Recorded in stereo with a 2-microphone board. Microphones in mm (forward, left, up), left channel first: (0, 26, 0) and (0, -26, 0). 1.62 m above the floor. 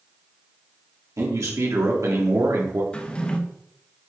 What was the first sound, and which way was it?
A man speaking, 80° right.